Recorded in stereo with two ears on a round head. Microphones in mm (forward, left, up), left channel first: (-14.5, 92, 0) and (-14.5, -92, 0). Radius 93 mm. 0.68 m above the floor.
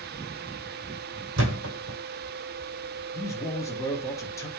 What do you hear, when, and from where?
1.4 s a thud: 65° right (ahead or behind), 1.8 m
3.1 s a man speaking: 15° left (ahead or behind), 0.8 m